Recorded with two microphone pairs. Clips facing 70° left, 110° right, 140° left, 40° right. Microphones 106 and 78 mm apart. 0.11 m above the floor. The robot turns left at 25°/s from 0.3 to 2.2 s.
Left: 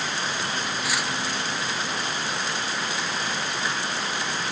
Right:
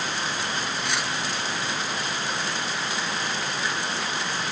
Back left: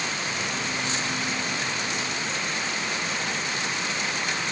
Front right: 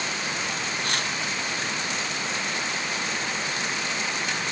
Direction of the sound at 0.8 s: 15° right.